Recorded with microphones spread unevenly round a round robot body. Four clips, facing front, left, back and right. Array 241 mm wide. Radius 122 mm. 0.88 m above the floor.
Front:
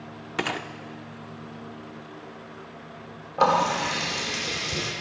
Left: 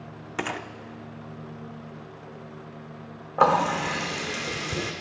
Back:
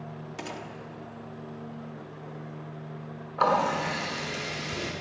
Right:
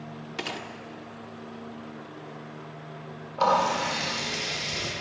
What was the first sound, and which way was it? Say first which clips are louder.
A gunshot: left 5 dB, front 10 dB; 20° left.